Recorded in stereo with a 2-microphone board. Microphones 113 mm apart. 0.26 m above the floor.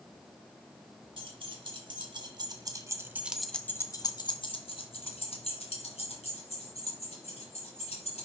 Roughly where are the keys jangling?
Right.